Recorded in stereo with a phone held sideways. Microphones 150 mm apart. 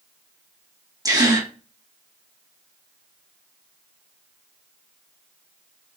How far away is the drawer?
I don't hear a drawer.